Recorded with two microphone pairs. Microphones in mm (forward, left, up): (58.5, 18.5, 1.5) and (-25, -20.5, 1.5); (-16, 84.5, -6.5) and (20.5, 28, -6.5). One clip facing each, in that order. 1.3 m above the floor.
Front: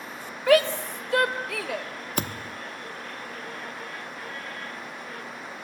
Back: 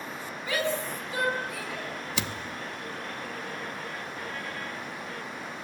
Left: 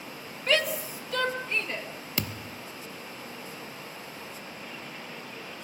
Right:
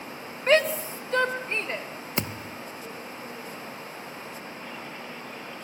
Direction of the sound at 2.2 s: 5° left.